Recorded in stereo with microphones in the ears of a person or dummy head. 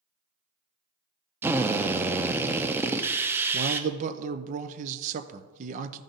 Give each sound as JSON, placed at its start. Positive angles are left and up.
{"t": 1.4, "sound": "a drill", "side_deg": -20, "distance_m": 0.5}
{"t": 3.5, "sound": "a man speaking", "side_deg": -35, "distance_m": 0.7}